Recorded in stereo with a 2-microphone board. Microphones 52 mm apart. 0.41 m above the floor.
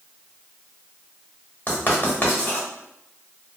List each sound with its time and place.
1.7 s writing: 35° left (ahead or behind), 0.9 m